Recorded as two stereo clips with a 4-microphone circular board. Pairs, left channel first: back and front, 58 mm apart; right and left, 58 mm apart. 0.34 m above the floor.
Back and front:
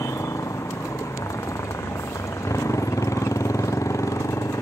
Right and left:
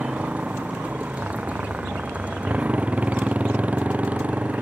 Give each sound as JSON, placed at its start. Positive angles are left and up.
{"t": 0.0, "sound": "a motorcycle", "azimuth_deg": 155}